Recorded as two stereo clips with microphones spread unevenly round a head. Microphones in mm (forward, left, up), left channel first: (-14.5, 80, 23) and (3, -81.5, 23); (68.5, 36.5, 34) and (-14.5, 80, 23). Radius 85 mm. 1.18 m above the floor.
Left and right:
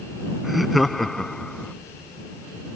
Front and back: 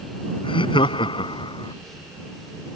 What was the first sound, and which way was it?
Laughter, 5° left.